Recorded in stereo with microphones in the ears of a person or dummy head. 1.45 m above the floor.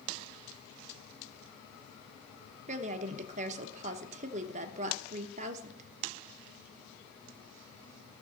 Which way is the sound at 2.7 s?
35° right (ahead or behind).